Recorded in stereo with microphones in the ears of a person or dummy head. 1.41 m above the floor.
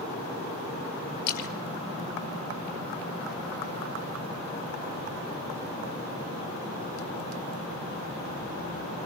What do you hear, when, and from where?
1.3 s a splash: 50° left (ahead or behind), 1.8 m